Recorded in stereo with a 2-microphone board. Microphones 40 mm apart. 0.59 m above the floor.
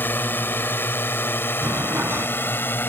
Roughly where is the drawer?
Right.